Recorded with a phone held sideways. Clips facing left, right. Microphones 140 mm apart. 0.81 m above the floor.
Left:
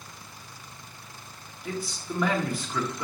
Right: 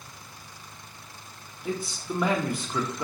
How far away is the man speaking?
About 0.6 m.